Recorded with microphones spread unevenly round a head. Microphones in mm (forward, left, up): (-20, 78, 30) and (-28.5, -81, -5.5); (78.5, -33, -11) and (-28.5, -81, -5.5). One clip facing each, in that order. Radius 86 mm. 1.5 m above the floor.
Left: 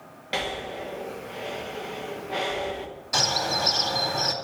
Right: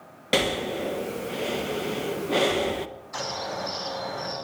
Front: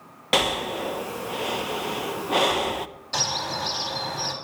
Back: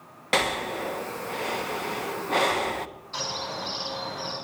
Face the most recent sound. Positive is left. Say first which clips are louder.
# left 4 dB, front 4 dB
turn(degrees=65)